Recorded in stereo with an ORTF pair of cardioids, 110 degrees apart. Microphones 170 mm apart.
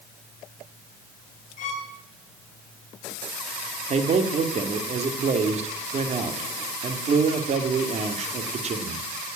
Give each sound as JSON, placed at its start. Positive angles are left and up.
{"t": 1.6, "sound": "a violin", "azimuth_deg": 50, "distance_m": 5.0}
{"t": 3.9, "sound": "a man speaking", "azimuth_deg": -40, "distance_m": 2.0}